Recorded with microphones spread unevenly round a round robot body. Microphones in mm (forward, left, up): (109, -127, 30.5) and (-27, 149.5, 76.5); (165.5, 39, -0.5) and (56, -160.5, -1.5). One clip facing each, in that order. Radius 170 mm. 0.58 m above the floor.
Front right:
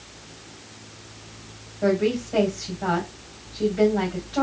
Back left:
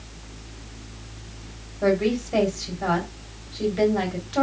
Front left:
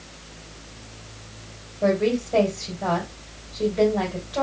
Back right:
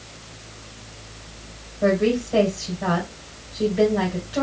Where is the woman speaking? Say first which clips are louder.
Even, back right 2 dB; 155° left, 2 m.